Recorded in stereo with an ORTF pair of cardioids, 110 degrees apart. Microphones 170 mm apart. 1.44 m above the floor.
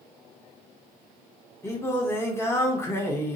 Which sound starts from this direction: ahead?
Singing, at 1.6 s.